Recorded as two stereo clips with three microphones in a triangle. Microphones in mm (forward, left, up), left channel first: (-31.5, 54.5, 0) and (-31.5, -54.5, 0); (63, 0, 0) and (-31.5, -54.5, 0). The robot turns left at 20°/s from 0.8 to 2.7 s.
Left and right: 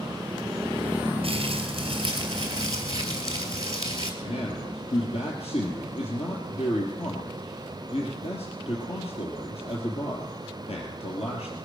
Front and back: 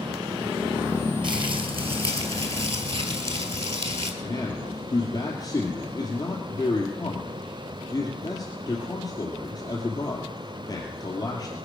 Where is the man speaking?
85° left, 3 m.